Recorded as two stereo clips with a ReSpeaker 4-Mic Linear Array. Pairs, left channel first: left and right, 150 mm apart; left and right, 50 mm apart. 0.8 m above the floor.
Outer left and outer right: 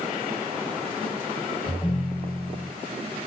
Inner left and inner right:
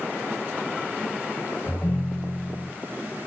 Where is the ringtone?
45° left (ahead or behind), 1.3 m.